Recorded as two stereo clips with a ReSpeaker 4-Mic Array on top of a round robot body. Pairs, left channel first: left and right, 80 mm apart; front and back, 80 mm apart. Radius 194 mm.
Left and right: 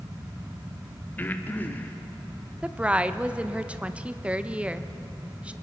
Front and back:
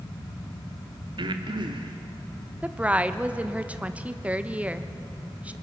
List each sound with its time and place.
1.2 s breathing: 160° left, 1.2 m
2.6 s a woman speaking: 140° right, 1.0 m